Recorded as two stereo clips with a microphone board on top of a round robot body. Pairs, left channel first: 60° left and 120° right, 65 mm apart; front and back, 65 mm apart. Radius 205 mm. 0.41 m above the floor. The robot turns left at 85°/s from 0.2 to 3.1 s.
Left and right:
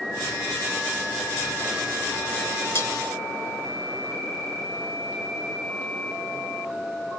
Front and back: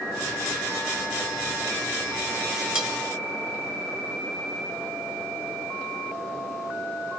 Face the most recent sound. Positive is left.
turn(degrees=70)